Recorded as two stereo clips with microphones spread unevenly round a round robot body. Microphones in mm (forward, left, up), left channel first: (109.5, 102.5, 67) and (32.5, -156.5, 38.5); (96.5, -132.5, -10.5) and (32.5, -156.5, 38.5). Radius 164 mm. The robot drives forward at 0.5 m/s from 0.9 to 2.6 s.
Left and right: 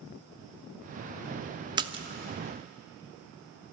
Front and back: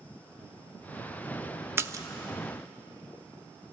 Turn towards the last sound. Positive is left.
turn(degrees=-125)